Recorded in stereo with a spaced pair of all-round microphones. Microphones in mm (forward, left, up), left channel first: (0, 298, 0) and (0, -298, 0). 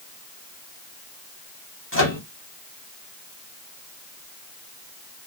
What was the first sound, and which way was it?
A microwave, 20° left (ahead or behind).